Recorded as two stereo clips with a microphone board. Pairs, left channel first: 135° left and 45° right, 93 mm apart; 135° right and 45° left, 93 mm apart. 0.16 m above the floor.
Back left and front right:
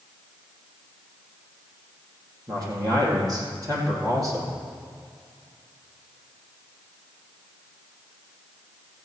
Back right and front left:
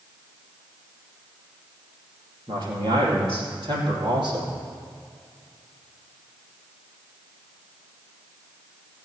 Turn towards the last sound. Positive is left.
turn(degrees=10)